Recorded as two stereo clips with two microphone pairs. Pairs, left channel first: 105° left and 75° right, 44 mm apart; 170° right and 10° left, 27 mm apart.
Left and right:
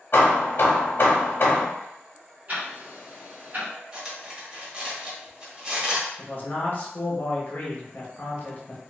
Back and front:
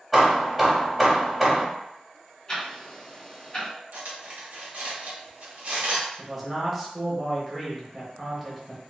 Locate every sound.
0.1 s hammering: 95° left, 0.9 m
2.5 s ticking: 110° right, 1.3 m
3.9 s cutlery clinking: 10° right, 1.0 m
6.2 s a man speaking: 95° left, 1.0 m